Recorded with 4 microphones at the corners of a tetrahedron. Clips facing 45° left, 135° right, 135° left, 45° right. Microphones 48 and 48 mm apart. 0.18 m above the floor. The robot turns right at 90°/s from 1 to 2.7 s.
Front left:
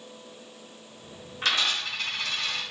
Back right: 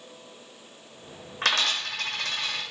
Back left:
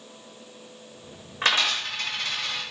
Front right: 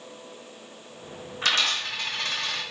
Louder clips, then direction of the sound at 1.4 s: Back right 1 dB, back left 1 dB; 170° right.